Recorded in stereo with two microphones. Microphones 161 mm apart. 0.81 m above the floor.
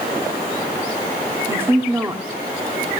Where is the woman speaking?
15° right (ahead or behind), 1.6 m.